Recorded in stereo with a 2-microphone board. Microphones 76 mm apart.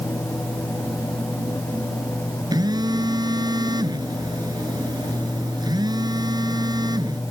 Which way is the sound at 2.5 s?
65° right (ahead or behind).